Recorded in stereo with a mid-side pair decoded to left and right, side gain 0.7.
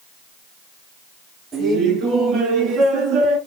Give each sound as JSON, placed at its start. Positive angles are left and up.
{"t": 1.5, "sound": "laughter", "azimuth_deg": -30, "distance_m": 3.0}